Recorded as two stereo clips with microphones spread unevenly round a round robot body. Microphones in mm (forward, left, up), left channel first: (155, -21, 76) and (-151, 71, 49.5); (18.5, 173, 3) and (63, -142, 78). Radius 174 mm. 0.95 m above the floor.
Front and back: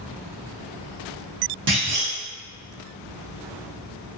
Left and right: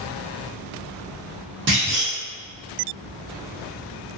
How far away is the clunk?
About 0.9 m.